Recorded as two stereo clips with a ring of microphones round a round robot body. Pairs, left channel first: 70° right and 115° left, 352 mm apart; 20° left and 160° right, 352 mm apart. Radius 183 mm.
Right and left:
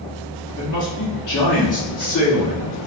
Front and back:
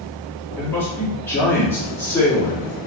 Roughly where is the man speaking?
Ahead right.